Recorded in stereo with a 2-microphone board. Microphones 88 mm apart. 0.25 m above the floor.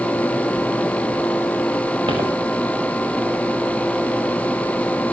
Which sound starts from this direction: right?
Footsteps, at 2.1 s.